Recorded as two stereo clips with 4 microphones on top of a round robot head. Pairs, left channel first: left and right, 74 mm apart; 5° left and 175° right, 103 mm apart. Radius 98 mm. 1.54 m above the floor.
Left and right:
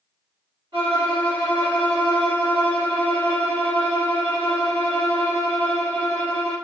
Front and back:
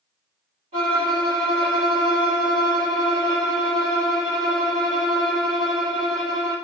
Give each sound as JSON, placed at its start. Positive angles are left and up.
{"t": 0.7, "sound": "a violin", "azimuth_deg": -150, "distance_m": 1.9}